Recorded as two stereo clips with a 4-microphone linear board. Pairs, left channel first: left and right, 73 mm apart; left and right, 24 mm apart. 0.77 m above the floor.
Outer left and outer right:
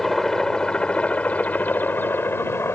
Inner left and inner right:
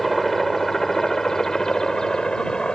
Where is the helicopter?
5° left (ahead or behind); by 2.8 s 35° left (ahead or behind).